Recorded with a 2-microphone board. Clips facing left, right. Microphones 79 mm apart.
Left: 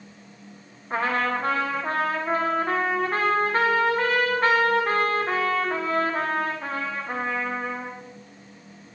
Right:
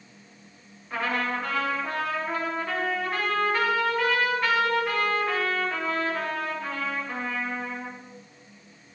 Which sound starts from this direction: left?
A trumpet, at 0.9 s.